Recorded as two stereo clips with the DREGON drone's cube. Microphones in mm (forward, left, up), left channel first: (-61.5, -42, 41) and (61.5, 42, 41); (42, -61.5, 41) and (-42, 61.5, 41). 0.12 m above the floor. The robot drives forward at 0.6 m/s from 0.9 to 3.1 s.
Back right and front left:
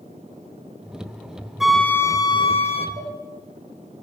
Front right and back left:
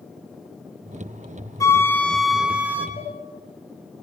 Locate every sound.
1.6 s a flute: 50° right, 0.6 m; by 2.9 s 165° right, 0.8 m
3.0 s dishes clattering: 15° right, 2.5 m